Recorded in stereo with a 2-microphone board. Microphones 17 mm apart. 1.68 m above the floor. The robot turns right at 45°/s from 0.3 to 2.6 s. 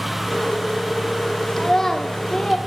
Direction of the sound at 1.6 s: 20° left.